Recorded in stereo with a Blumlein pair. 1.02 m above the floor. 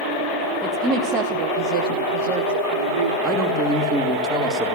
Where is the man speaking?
20° right, 2.5 m.